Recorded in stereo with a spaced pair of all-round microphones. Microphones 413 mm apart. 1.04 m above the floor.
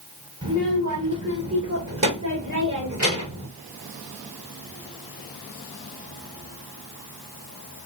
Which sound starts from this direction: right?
A child speaking, at 0.4 s.